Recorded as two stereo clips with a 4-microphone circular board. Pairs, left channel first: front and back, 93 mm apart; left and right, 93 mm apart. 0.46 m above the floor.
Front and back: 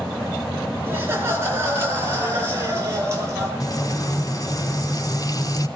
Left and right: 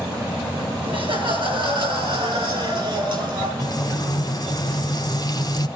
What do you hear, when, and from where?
0.9 s laughter: 115° right, 6.5 m; by 3.5 s 120° right, 10.5 m
3.6 s frying: 45° left, 3 m